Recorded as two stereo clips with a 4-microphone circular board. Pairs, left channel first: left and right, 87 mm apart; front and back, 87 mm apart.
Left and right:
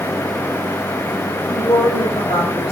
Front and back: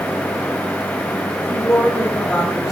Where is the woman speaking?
85° left, 3 m; by 2.7 s 95° left, 3.5 m.